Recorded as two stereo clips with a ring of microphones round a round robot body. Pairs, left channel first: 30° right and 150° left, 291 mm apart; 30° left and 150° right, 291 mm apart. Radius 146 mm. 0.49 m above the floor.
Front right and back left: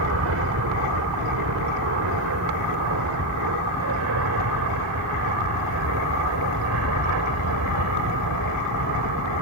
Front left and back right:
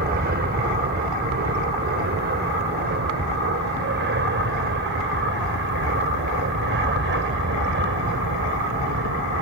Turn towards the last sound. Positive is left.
turn(degrees=170)